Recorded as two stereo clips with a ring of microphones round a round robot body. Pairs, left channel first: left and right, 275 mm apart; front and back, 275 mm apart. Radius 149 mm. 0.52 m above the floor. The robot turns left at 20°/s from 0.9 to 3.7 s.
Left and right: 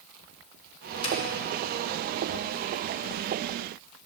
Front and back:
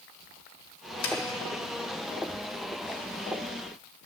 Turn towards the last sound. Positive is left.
turn(degrees=-35)